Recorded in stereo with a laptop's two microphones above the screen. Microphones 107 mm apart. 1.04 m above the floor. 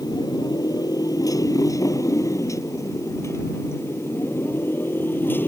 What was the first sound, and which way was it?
A motorcycle, 40° left (ahead or behind).